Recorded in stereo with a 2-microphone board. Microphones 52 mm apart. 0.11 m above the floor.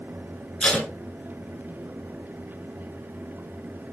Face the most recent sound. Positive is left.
turn(degrees=25)  # may be behind; listen again after turning